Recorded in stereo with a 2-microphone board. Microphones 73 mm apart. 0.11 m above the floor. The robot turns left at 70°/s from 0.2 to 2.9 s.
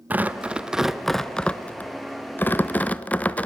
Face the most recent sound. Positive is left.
turn(degrees=20)  # may be behind; listen again after turning